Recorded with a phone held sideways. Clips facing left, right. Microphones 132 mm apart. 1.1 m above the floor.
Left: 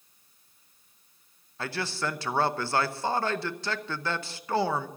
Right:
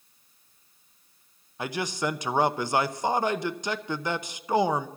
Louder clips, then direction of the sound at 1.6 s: Right 3 dB; 15° right (ahead or behind).